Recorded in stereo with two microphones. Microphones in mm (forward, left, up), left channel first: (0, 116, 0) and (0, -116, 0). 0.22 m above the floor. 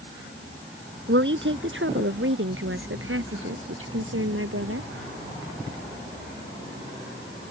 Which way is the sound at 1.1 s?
55° right (ahead or behind).